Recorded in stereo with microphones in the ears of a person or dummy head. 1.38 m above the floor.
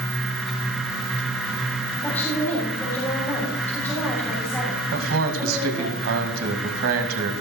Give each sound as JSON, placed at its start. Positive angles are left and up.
{"t": 2.0, "sound": "a woman speaking", "side_deg": 10, "distance_m": 4.5}
{"t": 4.9, "sound": "a man speaking", "side_deg": -70, "distance_m": 2.0}